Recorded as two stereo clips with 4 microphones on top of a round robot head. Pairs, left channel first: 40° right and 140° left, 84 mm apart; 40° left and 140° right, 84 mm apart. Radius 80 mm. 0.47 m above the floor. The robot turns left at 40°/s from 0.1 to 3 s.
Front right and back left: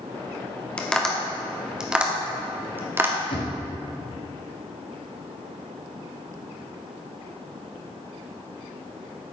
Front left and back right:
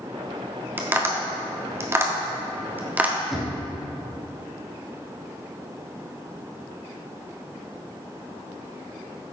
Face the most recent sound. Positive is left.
turn(degrees=-55)